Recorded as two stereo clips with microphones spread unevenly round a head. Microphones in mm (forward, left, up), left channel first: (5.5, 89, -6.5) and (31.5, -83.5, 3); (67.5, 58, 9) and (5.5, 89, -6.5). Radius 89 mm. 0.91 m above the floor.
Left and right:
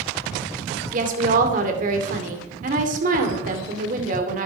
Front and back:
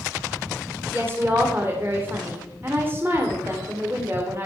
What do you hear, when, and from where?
0.9 s a woman speaking: 130° right, 2.5 m